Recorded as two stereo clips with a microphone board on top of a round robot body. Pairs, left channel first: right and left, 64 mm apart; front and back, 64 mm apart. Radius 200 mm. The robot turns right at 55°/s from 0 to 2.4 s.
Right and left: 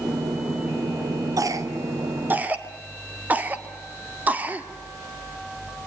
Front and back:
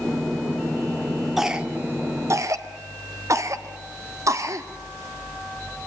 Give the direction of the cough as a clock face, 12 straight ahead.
9 o'clock.